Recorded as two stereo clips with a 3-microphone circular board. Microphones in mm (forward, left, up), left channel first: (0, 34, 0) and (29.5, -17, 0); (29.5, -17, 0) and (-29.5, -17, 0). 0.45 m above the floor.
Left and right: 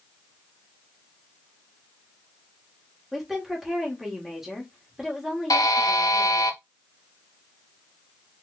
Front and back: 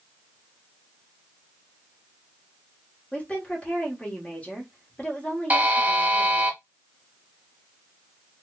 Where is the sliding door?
I don't hear a sliding door.